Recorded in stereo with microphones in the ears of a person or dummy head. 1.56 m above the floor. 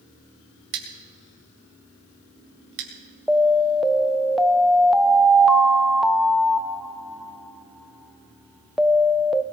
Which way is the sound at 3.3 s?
Centre (ahead or behind).